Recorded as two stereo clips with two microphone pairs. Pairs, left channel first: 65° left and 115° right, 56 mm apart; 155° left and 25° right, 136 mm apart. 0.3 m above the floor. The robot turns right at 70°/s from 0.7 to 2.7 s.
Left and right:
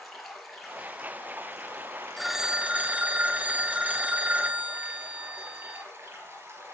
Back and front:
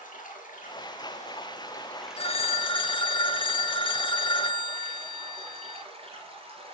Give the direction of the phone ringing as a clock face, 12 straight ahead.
7 o'clock.